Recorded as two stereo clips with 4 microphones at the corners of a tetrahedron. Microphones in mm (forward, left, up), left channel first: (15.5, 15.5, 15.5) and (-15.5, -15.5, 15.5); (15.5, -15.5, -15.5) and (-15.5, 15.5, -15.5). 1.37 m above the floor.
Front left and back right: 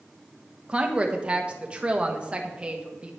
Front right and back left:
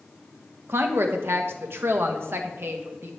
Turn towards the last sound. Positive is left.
turn(degrees=160)